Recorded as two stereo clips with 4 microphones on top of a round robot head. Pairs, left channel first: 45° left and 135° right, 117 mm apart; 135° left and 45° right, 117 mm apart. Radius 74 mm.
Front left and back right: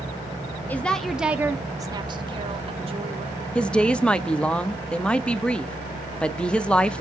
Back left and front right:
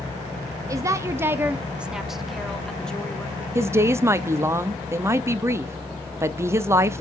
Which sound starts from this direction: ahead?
A woman speaking, at 0.7 s.